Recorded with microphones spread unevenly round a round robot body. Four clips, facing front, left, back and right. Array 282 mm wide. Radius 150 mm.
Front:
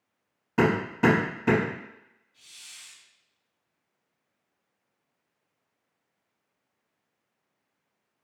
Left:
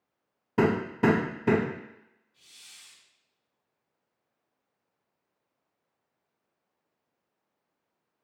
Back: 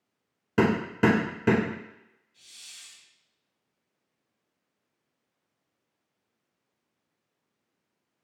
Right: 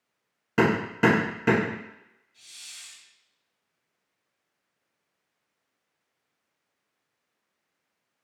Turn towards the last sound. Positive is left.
turn(degrees=135)